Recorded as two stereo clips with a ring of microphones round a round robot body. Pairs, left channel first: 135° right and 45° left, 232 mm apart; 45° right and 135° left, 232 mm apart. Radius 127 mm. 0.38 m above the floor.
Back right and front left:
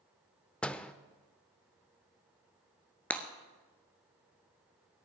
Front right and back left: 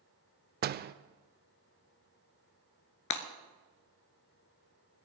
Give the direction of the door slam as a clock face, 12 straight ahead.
7 o'clock.